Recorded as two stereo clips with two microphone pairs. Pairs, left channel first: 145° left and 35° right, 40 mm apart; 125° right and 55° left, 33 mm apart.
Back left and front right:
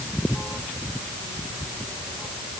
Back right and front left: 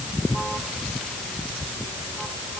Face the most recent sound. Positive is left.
No sound to turn to.